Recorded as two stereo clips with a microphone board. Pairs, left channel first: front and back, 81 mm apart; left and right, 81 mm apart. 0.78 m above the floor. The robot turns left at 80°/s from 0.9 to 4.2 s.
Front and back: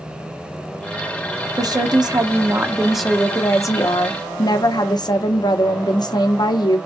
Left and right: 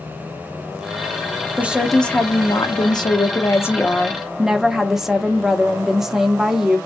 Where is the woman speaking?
155° right, 0.8 m; by 6.8 s 5° right, 0.8 m.